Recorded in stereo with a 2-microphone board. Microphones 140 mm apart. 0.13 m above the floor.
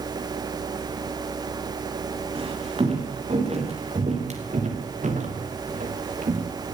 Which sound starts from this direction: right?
Footsteps, at 2.4 s.